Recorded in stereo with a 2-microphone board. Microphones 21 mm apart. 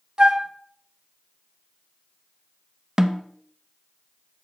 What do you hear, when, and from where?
0.2 s a flute: 40° right (ahead or behind), 0.9 m
3.0 s a snare drum: 25° right (ahead or behind), 0.7 m